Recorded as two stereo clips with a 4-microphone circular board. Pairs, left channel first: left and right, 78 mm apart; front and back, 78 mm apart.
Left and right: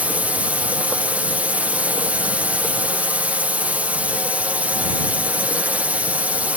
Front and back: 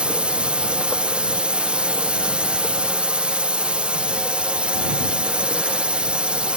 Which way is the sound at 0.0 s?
130° right.